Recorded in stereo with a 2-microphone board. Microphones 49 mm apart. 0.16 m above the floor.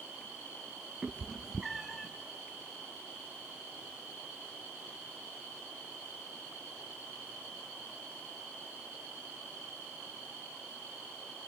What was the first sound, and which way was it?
A cat meowing, 15° right (ahead or behind).